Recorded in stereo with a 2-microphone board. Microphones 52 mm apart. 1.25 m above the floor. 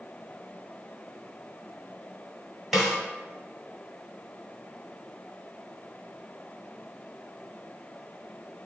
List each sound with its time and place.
2.7 s a snare drum: 5° right (ahead or behind), 1.3 m